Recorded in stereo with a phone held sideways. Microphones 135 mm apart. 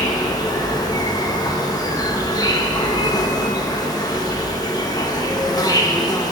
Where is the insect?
30° left (ahead or behind), 1.2 m.